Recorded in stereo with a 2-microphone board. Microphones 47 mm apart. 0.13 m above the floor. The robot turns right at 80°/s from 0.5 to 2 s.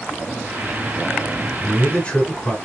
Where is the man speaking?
20° left (ahead or behind), 1.2 m; by 2.6 s 25° left (ahead or behind), 1.2 m.